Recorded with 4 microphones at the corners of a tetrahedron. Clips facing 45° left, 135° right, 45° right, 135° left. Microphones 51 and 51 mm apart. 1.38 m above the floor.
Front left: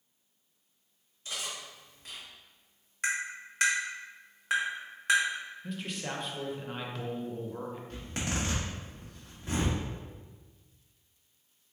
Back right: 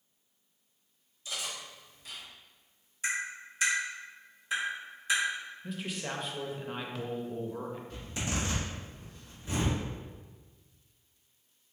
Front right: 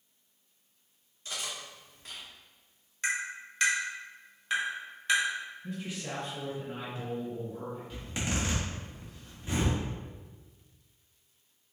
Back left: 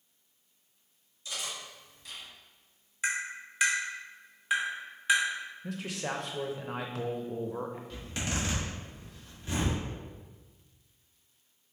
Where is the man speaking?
135° left, 0.6 m.